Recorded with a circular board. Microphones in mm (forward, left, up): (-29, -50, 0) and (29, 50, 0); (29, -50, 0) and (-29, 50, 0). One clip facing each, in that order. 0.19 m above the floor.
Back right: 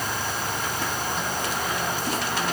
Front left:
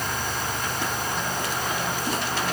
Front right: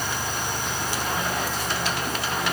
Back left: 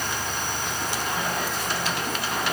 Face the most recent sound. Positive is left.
No sound to turn to.